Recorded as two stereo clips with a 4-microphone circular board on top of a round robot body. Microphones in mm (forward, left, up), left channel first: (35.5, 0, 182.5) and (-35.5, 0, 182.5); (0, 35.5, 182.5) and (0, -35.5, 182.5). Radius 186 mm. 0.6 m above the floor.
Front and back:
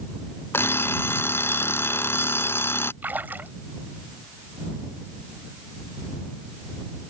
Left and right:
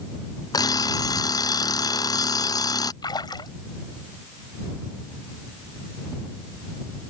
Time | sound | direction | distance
0.5 | an alarm clock | 60° left | ?
3.0 | a splash | 115° left | ?